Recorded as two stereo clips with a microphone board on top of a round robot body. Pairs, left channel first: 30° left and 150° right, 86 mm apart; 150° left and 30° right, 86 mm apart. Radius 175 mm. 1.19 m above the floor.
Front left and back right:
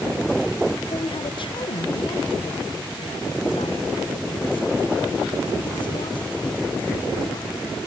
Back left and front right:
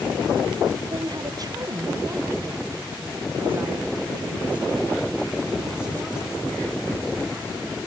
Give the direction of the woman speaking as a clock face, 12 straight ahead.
12 o'clock.